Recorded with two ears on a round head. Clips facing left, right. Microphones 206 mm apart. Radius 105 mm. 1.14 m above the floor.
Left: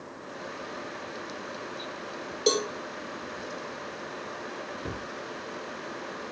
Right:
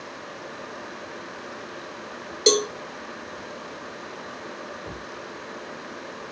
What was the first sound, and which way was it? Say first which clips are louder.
A cowbell: right 5 dB; 30° right (ahead or behind).